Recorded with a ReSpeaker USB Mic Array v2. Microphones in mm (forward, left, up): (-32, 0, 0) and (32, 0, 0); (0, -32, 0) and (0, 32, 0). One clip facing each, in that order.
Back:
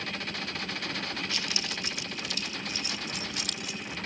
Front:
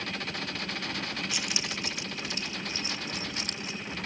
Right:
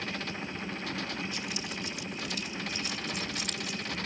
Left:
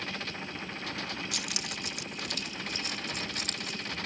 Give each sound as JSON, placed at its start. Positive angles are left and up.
{"t": 1.3, "sound": "keys jangling", "azimuth_deg": 75}